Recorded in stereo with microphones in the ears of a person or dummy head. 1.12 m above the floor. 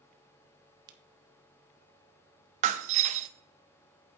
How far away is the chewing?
No chewing in this recording.